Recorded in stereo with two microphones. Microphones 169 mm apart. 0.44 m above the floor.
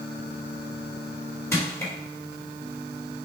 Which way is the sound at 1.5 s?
15° left (ahead or behind).